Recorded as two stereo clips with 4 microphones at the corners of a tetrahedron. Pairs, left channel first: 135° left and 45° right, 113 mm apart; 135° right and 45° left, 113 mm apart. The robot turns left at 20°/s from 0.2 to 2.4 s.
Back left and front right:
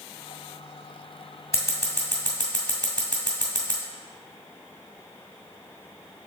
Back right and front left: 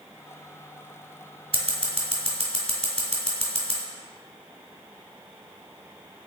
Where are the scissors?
75° left, 1.6 m; by 3.8 s 60° left, 1.6 m.